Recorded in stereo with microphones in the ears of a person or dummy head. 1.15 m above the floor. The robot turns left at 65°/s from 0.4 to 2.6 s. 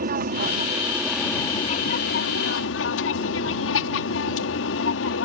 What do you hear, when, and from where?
0.0 s an aircraft: 135° right; by 5.2 s 85° left